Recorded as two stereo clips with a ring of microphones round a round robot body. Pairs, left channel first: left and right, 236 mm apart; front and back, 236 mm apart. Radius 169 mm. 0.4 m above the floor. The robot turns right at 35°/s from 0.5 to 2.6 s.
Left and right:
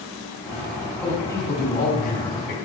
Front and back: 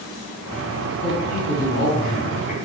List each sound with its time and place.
1.0 s a man speaking: straight ahead, 4 m; by 2.5 s 55° left, 4 m